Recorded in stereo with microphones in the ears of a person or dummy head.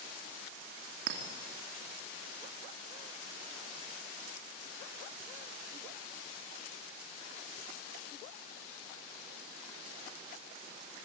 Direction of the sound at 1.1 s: 65° right (ahead or behind).